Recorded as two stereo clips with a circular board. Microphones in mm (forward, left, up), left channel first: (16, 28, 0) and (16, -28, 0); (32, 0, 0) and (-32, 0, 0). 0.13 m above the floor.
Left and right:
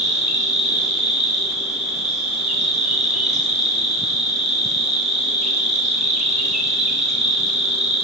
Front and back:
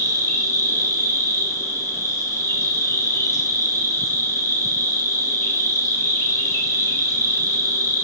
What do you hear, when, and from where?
0.0 s an insect: 10° right, 1.0 m